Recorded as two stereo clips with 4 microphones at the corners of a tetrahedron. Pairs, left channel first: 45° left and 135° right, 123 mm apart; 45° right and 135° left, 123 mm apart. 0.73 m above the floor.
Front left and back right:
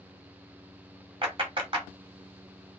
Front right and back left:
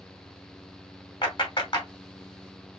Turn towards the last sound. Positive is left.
turn(degrees=-90)